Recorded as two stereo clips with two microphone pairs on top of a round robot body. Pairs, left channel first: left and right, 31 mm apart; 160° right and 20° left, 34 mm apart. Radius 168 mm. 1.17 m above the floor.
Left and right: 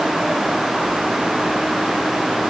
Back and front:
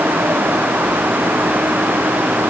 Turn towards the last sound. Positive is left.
No sound to turn to.